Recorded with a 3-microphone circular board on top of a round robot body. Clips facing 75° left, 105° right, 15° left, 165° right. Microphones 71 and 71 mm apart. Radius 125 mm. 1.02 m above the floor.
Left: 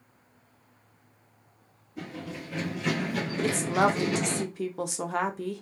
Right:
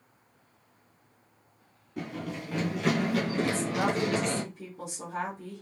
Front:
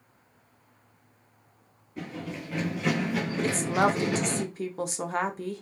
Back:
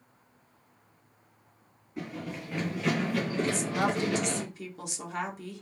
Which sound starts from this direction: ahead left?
A woman speaking, at 3.4 s.